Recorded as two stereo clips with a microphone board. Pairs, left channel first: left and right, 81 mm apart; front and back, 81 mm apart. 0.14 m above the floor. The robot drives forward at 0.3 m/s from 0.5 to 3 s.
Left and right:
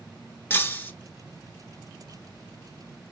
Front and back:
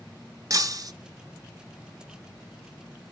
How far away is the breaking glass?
About 0.8 m.